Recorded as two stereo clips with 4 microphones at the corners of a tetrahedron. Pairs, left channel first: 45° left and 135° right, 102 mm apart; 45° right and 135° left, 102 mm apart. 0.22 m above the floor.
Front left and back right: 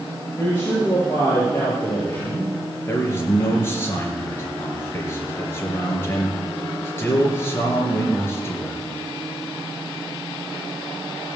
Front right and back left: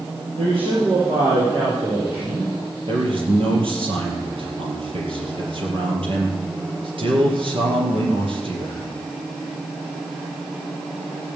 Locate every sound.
0.4 s a man speaking: 110° left, 5.5 m
2.9 s a man speaking: 110° left, 4 m